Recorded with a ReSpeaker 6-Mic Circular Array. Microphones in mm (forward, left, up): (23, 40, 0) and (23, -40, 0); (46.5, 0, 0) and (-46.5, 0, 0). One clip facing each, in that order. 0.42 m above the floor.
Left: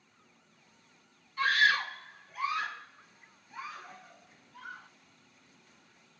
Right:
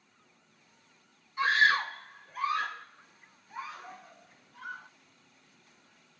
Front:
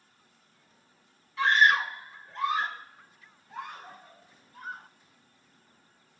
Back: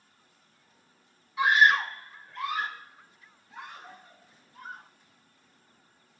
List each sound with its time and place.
1.4 s a scream: 130° right, 1.0 m; by 4.9 s 40° right, 4 m